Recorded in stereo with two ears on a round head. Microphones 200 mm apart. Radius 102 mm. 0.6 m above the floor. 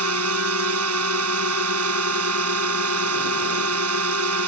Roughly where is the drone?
Right.